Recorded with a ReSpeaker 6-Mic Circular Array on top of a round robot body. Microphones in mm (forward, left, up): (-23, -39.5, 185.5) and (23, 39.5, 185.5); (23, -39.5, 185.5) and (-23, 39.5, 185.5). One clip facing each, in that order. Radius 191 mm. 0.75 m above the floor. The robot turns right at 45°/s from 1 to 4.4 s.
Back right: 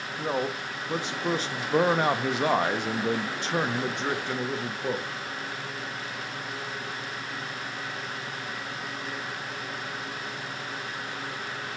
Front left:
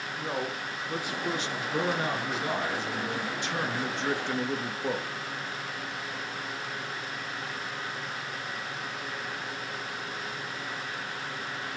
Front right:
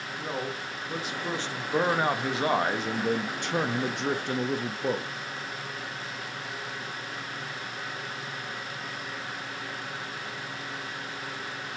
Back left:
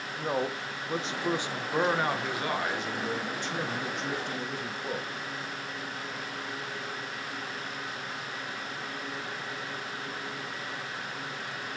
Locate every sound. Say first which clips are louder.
0.2 s a man speaking: back right 5 dB, back left 4 dB; 175° left, 0.6 m; by 5.1 s 30° right, 0.6 m